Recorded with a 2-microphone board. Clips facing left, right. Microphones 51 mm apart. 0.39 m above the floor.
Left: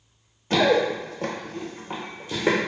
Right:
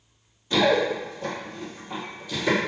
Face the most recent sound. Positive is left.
turn(degrees=25)  # may be behind; listen again after turning